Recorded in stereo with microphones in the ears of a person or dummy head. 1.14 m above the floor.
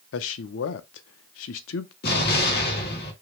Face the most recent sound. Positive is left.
turn(degrees=60)  # may be behind; listen again after turning